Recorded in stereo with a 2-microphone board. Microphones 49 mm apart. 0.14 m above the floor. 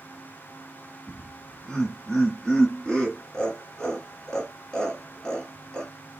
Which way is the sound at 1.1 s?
10° left (ahead or behind).